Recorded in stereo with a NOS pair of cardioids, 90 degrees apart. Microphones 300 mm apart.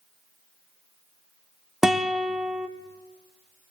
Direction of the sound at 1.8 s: Straight ahead.